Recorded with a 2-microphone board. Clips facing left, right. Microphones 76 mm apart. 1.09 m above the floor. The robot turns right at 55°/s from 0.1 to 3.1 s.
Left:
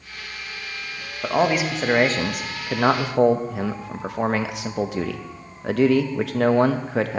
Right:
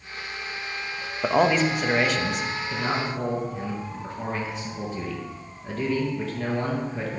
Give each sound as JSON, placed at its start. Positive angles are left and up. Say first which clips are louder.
{"t": 1.2, "sound": "a man speaking", "louder": "even", "azimuth_deg": -10, "distance_m": 0.9}